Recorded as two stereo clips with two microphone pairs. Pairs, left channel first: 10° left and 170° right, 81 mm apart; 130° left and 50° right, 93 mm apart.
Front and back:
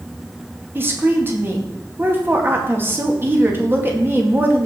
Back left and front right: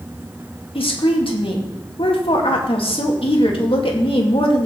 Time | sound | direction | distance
0.8 | a woman speaking | 125° left | 2 m